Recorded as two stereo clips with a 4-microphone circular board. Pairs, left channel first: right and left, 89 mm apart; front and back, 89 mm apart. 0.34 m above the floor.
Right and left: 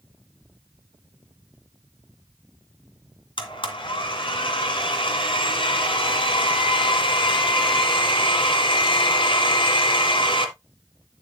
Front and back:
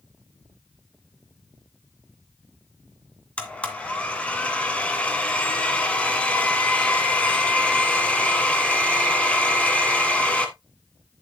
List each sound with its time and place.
3.4 s a blender: 75° right, 1.9 m